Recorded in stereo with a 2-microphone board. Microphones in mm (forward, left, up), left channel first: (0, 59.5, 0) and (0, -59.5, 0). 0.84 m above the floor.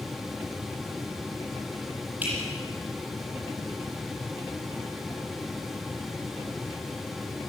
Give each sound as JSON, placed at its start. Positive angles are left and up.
{"t": 2.2, "sound": "dripping", "side_deg": -15, "distance_m": 8.5}